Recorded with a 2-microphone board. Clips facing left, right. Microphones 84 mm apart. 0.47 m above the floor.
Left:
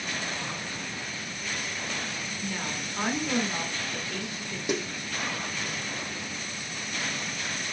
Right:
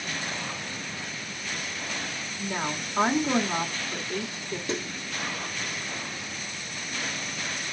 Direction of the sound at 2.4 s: 35° right (ahead or behind).